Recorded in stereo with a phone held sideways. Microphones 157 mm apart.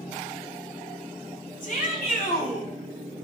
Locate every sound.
1.6 s a shout: 60° left (ahead or behind), 3.5 m; by 2.7 s 80° left, 3.5 m